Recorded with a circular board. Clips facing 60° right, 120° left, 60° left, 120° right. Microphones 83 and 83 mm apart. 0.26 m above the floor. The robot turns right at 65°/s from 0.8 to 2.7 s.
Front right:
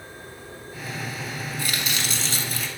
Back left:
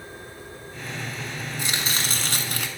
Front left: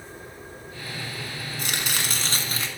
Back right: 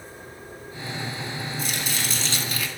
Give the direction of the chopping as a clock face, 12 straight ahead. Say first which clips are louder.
Back left 1 dB, front left 3 dB; 10 o'clock.